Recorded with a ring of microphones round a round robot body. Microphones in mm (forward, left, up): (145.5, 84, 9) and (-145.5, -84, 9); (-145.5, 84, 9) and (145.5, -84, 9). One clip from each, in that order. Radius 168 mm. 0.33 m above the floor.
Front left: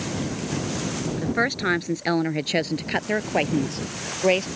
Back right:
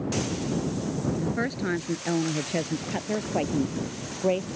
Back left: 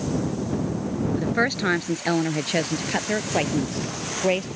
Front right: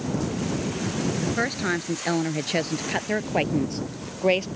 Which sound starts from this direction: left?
A woman speaking, at 1.2 s.